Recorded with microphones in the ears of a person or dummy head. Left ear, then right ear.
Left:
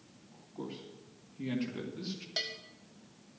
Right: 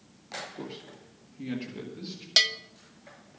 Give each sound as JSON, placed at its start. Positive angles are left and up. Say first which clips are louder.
{"t": 0.6, "sound": "a man speaking", "louder": "right 3 dB", "side_deg": 0, "distance_m": 1.9}
{"t": 2.4, "sound": "a bell", "louder": "right 14 dB", "side_deg": -50, "distance_m": 0.6}